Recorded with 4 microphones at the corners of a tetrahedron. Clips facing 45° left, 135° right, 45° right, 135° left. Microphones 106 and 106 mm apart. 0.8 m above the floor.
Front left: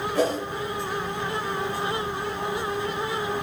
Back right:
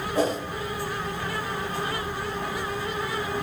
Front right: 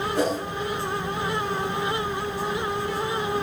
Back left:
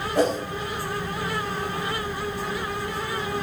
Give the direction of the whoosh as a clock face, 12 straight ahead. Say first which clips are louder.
Even, back left 3 dB; 7 o'clock.